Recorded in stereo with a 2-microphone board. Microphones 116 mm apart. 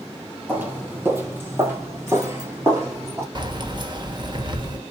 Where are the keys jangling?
40° right (ahead or behind), 1.1 m.